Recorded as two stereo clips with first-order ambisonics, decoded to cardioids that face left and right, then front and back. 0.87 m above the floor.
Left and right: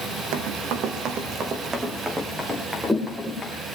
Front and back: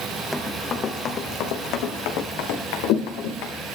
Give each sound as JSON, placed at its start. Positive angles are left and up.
{"t": 0.3, "sound": "running footsteps", "azimuth_deg": -80, "distance_m": 1.8}